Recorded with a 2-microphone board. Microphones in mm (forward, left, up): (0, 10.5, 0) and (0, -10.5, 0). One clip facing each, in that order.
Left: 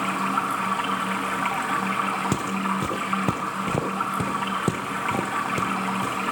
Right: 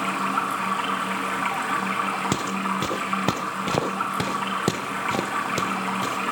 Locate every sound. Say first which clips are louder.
0.0 s running water: even; centre (ahead or behind), 6.5 m
2.3 s footsteps: even; 35° right (ahead or behind), 1.2 m; by 6.2 s 55° right (ahead or behind), 2.5 m